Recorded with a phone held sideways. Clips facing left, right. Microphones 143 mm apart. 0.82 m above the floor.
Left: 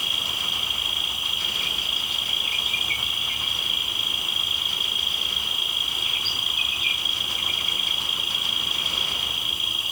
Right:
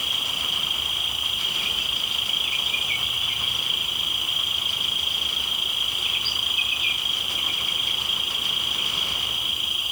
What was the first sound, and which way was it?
An insect, 45° left (ahead or behind).